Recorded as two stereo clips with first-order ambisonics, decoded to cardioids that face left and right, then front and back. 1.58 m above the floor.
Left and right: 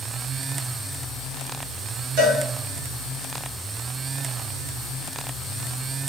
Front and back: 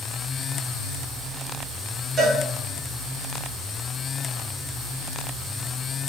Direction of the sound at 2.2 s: 105° right.